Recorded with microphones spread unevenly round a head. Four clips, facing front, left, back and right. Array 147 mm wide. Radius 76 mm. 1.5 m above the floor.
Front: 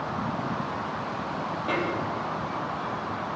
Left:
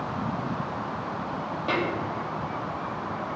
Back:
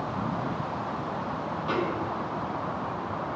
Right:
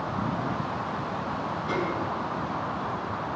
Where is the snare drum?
65° left, 3 m.